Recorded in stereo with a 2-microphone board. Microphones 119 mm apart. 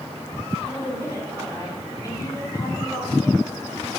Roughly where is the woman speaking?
Left.